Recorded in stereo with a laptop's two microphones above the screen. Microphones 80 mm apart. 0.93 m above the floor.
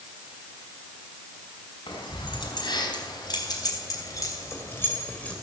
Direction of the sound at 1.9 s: 70° left (ahead or behind).